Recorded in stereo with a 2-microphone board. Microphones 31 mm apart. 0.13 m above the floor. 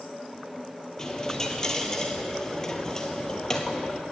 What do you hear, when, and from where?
1.0 s a dropped coin: 15° left (ahead or behind), 0.9 m